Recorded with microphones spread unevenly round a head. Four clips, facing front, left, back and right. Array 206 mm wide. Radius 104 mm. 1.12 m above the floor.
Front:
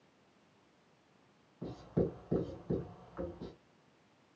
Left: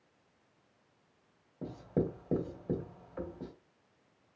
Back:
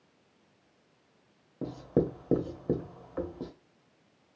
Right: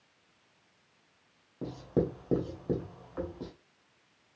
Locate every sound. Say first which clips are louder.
1.6 s writing: right 3 dB, back 6 dB; 175° right, 1.1 m